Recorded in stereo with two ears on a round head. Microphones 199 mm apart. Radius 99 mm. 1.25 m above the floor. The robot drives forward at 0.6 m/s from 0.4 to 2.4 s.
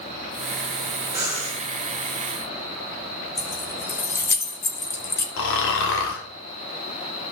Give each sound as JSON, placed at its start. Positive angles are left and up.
{"t": 1.1, "sound": "breathing", "side_deg": -15, "distance_m": 3.5}
{"t": 3.4, "sound": "keys jangling", "side_deg": 15, "distance_m": 0.7}
{"t": 5.4, "sound": "snoring", "side_deg": 60, "distance_m": 1.4}